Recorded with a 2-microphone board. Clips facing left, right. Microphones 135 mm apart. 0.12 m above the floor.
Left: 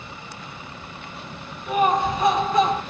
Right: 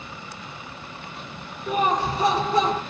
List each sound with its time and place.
1.7 s laughter: 30° right (ahead or behind), 2.5 m